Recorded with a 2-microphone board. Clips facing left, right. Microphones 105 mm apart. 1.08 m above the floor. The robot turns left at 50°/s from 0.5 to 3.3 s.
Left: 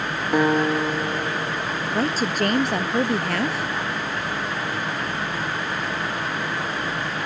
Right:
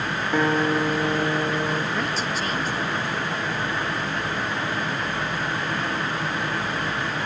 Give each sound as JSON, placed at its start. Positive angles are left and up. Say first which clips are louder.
{"t": 0.3, "sound": "a guitar", "louder": "left 2 dB", "azimuth_deg": 15}
{"t": 1.9, "sound": "a woman speaking", "louder": "left 4 dB", "azimuth_deg": 150}